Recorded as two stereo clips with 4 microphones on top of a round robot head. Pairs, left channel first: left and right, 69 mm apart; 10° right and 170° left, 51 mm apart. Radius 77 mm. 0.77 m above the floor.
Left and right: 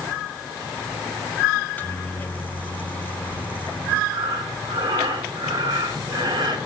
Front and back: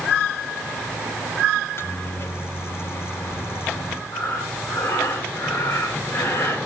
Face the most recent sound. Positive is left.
turn(degrees=-60)